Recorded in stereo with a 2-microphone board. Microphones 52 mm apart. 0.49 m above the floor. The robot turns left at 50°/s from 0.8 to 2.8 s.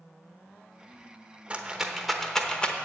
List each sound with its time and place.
1.5 s a rattle: 25° right (ahead or behind), 0.9 m; by 2.8 s 25° left (ahead or behind), 0.9 m